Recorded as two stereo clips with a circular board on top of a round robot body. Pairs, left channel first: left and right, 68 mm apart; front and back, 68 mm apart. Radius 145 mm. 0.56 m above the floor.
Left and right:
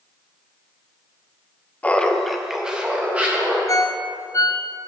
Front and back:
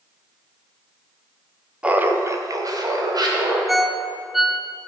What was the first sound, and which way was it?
Laughter, 125° left.